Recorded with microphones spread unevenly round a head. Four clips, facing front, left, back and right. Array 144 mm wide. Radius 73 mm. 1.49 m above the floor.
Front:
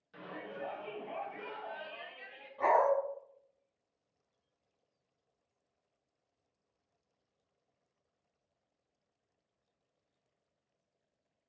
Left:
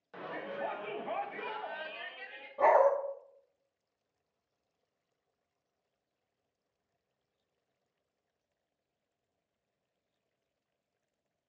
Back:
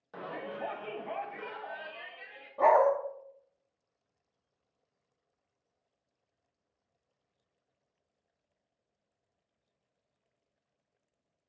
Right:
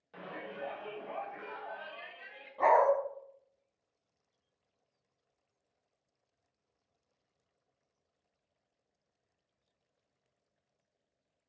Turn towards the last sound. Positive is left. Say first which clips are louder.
# left 1 dB, back 5 dB
turn(degrees=160)